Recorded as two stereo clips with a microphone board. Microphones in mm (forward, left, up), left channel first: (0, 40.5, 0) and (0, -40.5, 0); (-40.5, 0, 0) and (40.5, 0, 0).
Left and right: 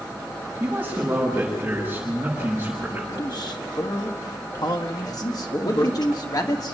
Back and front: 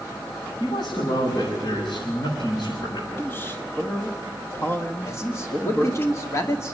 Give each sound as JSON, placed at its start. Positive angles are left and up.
{"t": 0.6, "sound": "a man speaking", "azimuth_deg": -155, "distance_m": 7.5}
{"t": 3.1, "sound": "a man speaking", "azimuth_deg": 115, "distance_m": 1.6}
{"t": 5.1, "sound": "a man speaking", "azimuth_deg": 125, "distance_m": 2.5}